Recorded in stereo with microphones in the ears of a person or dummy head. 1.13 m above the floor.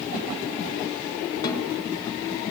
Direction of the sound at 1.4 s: 25° left (ahead or behind).